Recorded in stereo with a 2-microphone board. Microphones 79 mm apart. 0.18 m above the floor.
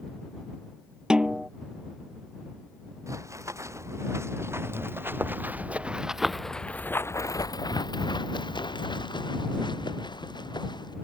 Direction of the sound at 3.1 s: 40° right (ahead or behind).